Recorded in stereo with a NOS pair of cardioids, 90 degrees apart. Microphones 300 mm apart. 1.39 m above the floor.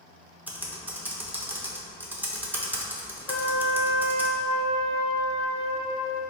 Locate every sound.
0.5 s typing on a keyboard: 5° right, 0.7 m
3.3 s a trumpet: 50° left, 0.6 m